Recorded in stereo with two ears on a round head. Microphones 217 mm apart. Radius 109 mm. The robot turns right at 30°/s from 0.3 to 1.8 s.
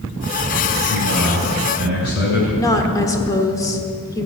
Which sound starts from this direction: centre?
A woman speaking, at 2.6 s.